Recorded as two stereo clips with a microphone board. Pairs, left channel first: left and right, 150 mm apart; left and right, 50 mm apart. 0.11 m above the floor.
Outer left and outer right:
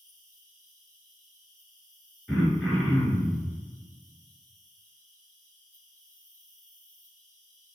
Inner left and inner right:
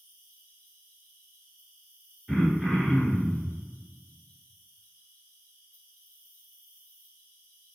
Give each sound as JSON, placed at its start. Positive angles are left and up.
{"t": 0.0, "sound": "an insect", "side_deg": -45, "distance_m": 1.7}
{"t": 2.3, "sound": "throat clearing", "side_deg": -5, "distance_m": 0.9}